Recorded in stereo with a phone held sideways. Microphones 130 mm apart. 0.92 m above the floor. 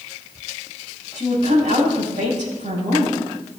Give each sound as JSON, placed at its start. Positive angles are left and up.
{"t": 1.1, "sound": "a woman speaking", "side_deg": -70, "distance_m": 4.5}